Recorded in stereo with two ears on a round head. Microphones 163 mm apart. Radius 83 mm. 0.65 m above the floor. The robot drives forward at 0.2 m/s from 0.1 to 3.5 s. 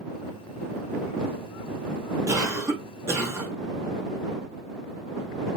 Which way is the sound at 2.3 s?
15° right (ahead or behind).